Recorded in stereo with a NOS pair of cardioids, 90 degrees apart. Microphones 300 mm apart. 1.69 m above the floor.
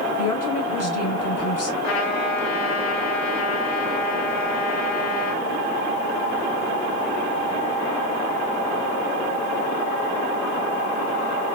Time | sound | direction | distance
0.2 | a woman speaking | 55° left | 2 m
1.8 | a trumpet | 60° left | 2.5 m